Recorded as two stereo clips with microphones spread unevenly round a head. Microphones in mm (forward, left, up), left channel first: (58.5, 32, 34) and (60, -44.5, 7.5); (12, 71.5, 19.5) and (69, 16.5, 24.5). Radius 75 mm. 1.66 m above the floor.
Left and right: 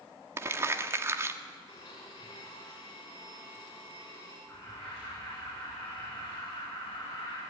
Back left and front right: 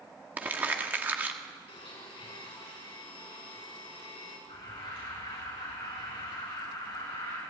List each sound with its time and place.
0.4 s crumpling: 25° right, 1.2 m
1.7 s a blender: 150° left, 5.5 m
4.5 s an alarm: 165° left, 6 m